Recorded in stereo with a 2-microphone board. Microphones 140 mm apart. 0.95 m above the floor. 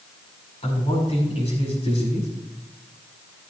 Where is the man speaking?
45° left (ahead or behind), 6 m.